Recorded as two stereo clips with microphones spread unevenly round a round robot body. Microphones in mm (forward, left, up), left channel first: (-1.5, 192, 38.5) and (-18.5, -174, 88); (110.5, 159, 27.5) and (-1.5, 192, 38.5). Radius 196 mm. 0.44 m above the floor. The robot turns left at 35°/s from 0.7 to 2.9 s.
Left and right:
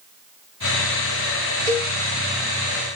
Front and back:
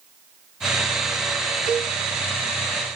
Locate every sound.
1.7 s a cowbell: 165° right, 1.4 m; by 1.9 s 175° right, 1.4 m